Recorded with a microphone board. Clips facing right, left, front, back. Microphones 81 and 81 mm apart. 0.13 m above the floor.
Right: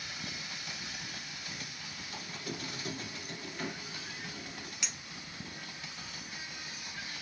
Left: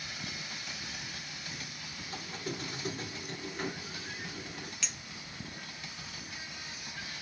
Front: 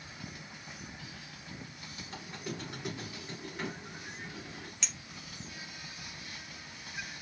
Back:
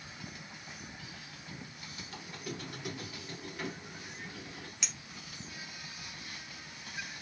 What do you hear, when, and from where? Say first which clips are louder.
2.1 s a squeak: left 3 dB, front 2 dB; 50° left, 1.1 m
4.8 s a clink: right 2 dB, even; 110° right, 0.7 m